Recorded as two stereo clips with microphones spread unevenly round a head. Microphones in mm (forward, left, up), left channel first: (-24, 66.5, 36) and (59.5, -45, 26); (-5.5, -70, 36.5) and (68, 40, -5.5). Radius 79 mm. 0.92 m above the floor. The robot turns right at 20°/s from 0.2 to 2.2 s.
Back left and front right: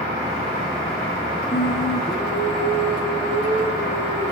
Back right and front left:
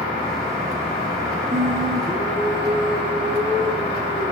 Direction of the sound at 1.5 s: 140° left.